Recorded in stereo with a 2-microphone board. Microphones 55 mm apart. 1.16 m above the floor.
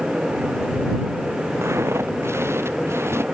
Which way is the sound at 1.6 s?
55° right (ahead or behind).